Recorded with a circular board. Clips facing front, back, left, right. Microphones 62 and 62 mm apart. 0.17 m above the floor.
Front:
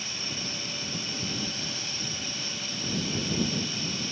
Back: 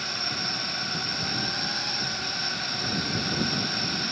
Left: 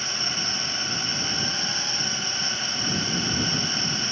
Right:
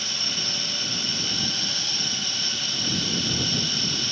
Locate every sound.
0.0 s a drone: 150° left